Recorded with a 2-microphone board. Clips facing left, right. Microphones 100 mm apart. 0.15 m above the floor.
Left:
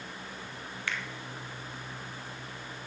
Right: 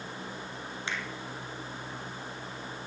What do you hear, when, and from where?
0.9 s a finger snap: 20° right (ahead or behind), 1.1 m